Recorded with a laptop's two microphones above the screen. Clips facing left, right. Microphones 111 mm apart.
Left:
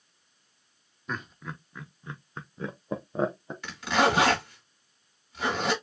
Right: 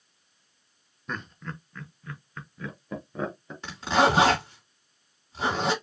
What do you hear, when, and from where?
1.1 s laughter: centre (ahead or behind), 1.0 m; by 3.5 s 30° left (ahead or behind), 1.2 m
3.6 s a zipper: 30° right (ahead or behind), 2.5 m